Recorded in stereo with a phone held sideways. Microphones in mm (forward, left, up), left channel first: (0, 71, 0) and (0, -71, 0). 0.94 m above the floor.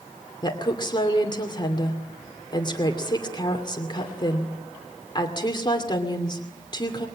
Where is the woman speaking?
30° left (ahead or behind), 2.5 m.